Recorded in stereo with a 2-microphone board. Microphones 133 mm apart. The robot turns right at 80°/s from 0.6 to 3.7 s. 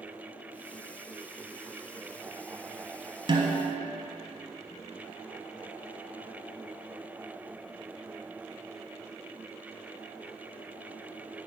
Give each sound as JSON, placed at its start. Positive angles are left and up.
{"t": 3.3, "sound": "a snare drum", "azimuth_deg": -120, "distance_m": 1.1}